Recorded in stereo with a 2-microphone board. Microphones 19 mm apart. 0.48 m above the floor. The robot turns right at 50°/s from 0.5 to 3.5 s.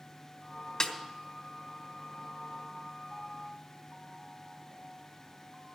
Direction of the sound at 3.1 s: 65° right (ahead or behind).